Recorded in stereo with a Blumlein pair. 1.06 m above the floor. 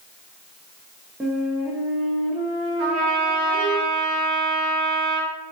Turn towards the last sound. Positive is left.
turn(degrees=-30)